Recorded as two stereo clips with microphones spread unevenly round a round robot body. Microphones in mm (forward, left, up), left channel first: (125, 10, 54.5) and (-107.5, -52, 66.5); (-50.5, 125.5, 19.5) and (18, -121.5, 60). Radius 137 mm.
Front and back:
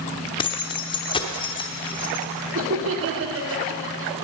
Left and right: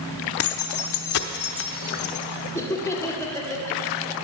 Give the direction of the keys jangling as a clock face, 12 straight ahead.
9 o'clock.